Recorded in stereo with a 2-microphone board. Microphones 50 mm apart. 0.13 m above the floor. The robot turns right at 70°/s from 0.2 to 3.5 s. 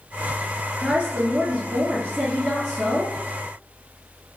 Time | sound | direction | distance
0.8 | a woman speaking | 140° right | 2.0 m